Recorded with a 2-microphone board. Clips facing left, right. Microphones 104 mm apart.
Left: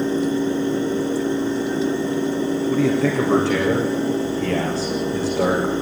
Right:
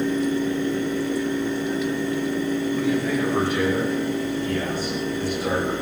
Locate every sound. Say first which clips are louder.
2.7 s a man speaking: left 6 dB; 80° left, 8 m